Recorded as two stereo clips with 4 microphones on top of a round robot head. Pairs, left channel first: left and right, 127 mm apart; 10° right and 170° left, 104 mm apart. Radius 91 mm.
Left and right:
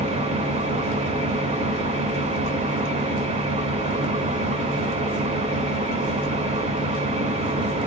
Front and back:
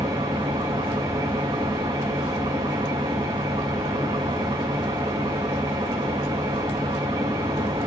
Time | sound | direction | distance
0.0 | an engine running | 125° right | 1.7 m